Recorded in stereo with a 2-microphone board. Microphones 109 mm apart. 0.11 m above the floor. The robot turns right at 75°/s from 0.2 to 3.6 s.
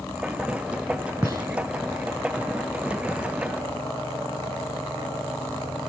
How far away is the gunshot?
About 1.0 m.